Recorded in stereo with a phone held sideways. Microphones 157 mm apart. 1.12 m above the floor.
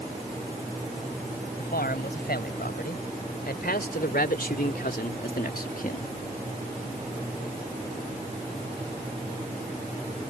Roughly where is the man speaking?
Left.